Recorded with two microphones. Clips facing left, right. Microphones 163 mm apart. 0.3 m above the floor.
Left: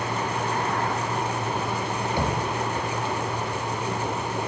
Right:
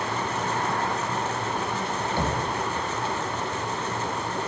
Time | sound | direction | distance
2.2 | knocking | 15° left (ahead or behind) | 1.2 m